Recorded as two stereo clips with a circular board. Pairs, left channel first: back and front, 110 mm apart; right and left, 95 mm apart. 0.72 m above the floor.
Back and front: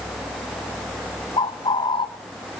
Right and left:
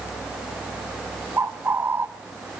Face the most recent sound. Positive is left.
turn(degrees=150)